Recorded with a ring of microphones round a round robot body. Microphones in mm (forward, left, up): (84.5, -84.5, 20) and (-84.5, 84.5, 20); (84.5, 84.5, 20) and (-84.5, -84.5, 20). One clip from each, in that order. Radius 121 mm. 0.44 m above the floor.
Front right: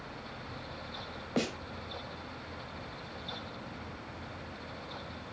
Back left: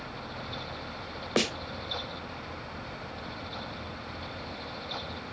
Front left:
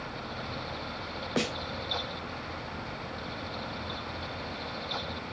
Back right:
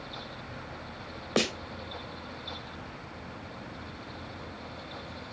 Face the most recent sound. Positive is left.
turn(degrees=160)